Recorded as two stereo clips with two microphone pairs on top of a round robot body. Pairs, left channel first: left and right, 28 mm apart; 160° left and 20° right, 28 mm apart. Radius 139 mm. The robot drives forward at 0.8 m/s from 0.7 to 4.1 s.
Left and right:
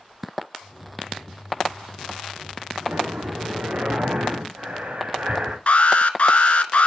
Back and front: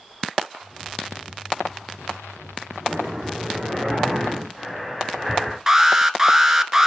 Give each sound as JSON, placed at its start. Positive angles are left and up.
{"t": 2.8, "sound": "breathing", "azimuth_deg": -110, "distance_m": 3.0}
{"t": 5.7, "sound": "an alarm", "azimuth_deg": 50, "distance_m": 1.0}